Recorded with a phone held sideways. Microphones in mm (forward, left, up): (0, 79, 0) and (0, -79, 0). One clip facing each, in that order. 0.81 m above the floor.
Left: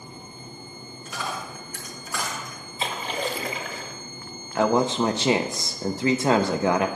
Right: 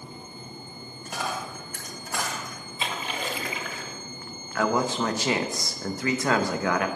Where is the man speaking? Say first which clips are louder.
Left 4 dB; 25° left (ahead or behind), 0.5 m.